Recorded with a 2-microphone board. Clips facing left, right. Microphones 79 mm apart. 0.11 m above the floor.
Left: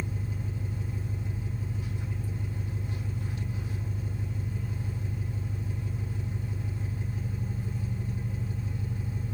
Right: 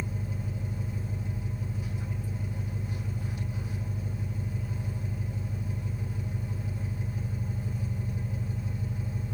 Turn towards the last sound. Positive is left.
turn(degrees=-15)  # may be behind; listen again after turning